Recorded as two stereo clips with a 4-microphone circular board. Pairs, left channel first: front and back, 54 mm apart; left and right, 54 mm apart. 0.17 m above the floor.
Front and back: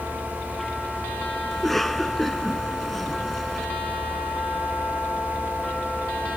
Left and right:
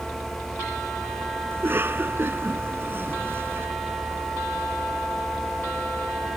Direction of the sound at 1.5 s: 85° right.